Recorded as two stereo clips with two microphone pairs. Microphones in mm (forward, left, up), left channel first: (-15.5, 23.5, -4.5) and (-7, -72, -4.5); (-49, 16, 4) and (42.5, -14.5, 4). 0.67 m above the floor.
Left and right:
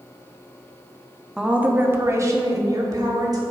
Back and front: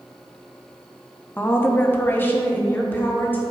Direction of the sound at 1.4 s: 160° right.